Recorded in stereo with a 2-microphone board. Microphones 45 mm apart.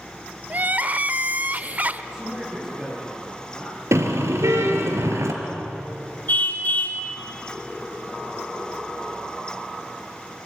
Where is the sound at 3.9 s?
85° right, 3 m.